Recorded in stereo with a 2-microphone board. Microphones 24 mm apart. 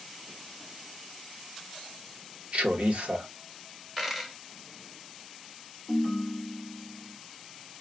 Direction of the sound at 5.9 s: Centre (ahead or behind).